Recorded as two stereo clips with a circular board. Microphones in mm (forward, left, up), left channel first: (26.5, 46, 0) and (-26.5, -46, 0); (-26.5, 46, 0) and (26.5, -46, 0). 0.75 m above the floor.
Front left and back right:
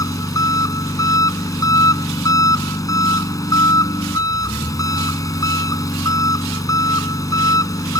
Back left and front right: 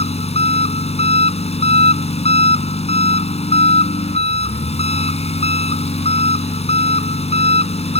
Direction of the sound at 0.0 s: 115° left.